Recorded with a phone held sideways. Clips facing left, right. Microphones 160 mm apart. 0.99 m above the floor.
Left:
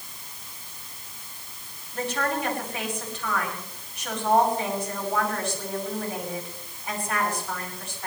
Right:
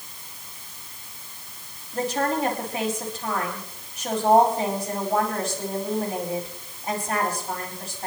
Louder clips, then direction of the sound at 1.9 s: Right 3 dB; 40° right (ahead or behind).